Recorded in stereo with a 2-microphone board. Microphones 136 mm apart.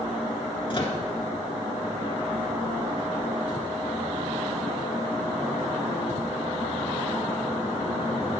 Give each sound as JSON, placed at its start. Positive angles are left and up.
{"t": 0.7, "sound": "a microwave", "side_deg": 40, "distance_m": 1.5}